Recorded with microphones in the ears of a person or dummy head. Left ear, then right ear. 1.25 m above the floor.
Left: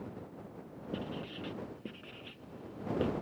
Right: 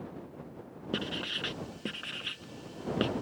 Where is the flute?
No flute in this recording.